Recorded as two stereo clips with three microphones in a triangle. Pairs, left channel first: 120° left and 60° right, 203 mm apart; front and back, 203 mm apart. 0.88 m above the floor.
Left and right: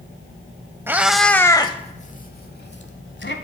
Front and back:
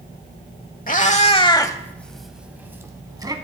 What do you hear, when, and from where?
0.9 s a cat meowing: 15° left, 0.8 m; by 3.3 s 115° left, 1.3 m